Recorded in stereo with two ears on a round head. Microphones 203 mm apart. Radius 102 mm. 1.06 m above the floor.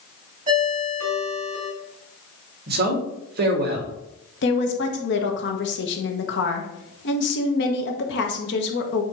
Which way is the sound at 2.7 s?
45° right (ahead or behind).